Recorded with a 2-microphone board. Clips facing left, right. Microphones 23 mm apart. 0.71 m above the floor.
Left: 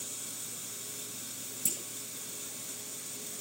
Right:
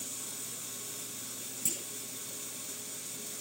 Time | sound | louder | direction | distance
1.6 | a clunk | even | 20° right (ahead or behind) | ?